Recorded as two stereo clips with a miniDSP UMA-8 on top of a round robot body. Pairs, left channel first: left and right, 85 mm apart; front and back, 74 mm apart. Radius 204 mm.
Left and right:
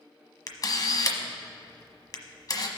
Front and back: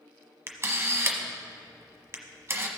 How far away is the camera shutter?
About 1.2 m.